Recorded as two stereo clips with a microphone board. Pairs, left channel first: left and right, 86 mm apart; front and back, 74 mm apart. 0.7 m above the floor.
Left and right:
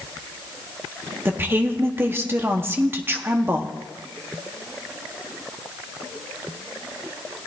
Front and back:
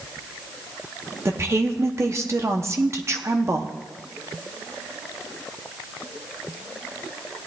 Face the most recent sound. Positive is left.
turn(degrees=-145)